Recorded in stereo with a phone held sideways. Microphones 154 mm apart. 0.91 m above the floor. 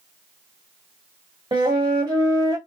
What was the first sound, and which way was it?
A flute, 30° right (ahead or behind).